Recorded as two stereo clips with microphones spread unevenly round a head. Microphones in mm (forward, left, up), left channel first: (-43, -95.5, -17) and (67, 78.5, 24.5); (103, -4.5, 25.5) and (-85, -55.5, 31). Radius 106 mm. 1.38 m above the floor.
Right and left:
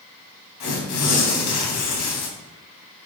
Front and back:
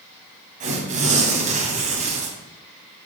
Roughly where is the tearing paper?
Behind right.